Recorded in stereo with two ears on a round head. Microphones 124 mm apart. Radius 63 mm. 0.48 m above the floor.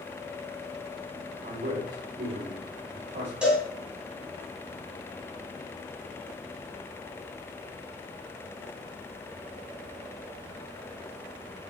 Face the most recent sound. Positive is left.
turn(degrees=-5)  # may be behind; listen again after turning